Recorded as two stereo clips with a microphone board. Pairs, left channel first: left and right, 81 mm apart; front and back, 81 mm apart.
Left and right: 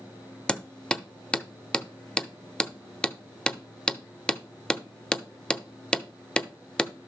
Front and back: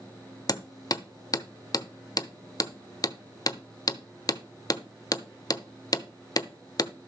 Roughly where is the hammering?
Ahead.